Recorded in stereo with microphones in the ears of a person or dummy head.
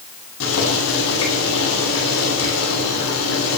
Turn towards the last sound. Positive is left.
turn(degrees=90)